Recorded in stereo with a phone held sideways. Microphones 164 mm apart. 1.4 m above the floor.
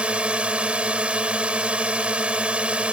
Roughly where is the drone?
Centre.